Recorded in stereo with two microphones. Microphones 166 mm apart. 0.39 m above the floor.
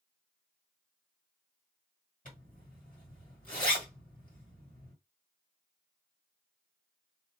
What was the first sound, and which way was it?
A zipper, 50° left (ahead or behind).